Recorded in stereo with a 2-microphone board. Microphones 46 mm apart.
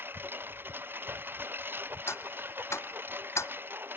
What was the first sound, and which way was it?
A lawn mower, 45° right (ahead or behind).